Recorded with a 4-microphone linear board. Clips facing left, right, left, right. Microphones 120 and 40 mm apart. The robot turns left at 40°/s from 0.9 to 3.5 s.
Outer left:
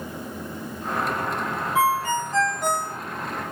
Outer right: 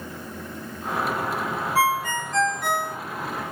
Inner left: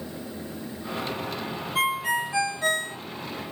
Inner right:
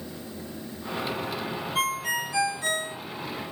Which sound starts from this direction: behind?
A ringtone, at 1.8 s.